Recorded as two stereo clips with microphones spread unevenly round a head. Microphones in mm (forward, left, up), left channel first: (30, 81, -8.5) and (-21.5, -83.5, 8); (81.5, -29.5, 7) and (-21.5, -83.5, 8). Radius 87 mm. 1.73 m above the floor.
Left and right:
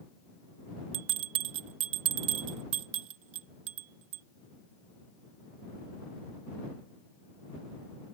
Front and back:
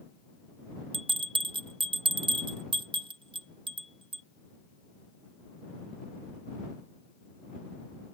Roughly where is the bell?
Right.